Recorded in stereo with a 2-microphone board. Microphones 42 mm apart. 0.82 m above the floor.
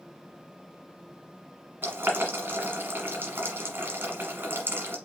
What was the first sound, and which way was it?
Boiling, 55° right (ahead or behind).